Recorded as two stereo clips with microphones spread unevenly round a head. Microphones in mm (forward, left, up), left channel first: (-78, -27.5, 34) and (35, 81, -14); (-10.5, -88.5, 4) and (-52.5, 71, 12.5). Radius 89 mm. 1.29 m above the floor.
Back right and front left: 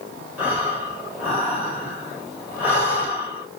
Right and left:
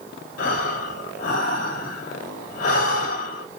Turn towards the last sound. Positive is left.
turn(degrees=-30)